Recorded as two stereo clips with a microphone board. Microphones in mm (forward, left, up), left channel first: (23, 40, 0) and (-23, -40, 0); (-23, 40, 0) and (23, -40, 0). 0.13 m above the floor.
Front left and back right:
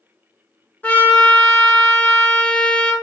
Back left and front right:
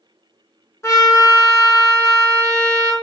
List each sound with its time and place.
0.8 s a trumpet: 110° left, 0.6 m